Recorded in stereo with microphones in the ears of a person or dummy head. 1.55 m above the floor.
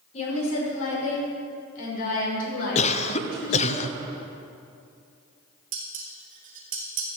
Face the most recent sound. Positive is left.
turn(degrees=-50)  # may be behind; listen again after turning